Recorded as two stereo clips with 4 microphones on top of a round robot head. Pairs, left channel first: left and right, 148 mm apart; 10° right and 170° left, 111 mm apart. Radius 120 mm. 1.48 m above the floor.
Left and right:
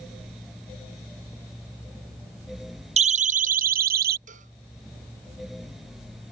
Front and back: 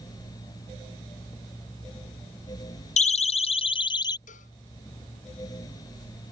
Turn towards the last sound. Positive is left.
turn(degrees=-40)